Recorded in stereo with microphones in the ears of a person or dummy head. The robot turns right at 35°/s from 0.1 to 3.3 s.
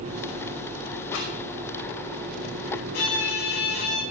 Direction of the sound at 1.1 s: 70° left (ahead or behind).